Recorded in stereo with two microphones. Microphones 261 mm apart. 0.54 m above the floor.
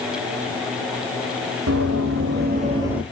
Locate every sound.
1.7 s running footsteps: 65° right (ahead or behind), 1.4 m; by 3.0 s centre (ahead or behind), 0.8 m